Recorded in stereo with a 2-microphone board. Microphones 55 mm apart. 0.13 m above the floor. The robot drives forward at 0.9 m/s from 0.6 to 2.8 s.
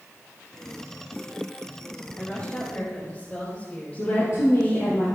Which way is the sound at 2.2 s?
30° left (ahead or behind).